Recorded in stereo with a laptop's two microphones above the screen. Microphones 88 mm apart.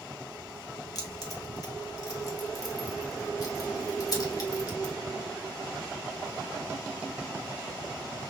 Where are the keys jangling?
45° left (ahead or behind), 1.2 m.